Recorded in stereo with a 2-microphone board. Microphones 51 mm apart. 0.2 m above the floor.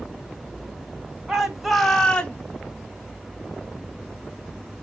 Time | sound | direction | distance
1.3 | a shout | 15° right (ahead or behind) | 1.4 m